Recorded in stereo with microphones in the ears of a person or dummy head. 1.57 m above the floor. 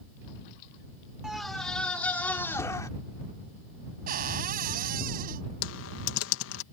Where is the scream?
5° right (ahead or behind); by 2.9 s 15° left (ahead or behind).